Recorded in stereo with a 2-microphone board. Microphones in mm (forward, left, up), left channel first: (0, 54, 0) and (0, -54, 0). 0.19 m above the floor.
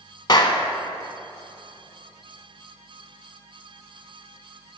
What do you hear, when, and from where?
0.3 s a clap: 40° left (ahead or behind), 1.1 m